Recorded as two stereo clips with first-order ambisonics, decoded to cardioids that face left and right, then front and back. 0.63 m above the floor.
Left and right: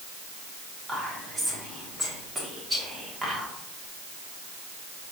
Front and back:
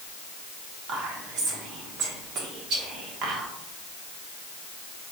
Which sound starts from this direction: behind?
Whispering, at 0.9 s.